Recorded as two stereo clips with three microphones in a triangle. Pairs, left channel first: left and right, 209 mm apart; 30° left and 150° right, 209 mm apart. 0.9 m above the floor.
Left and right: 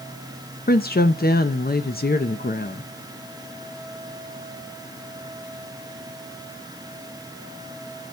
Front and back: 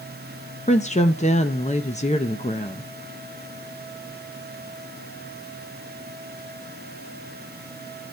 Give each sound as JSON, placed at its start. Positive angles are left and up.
{"t": 0.7, "sound": "a woman speaking", "azimuth_deg": 70, "distance_m": 0.6}